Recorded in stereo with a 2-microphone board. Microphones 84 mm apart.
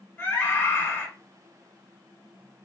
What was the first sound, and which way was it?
A scream, 25° left (ahead or behind).